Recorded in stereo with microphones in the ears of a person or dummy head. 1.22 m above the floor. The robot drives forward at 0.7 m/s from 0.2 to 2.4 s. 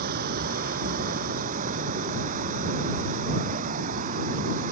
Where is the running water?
50° right (ahead or behind); by 4.7 s 45° right (ahead or behind).